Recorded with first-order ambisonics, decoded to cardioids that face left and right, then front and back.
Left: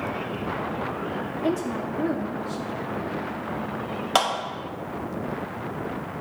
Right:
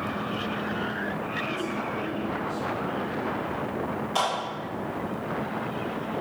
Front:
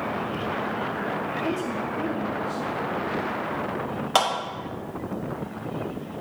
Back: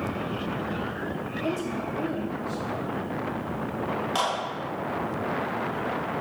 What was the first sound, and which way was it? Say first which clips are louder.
A woman speaking: left 3 dB, front 2 dB; 80° left.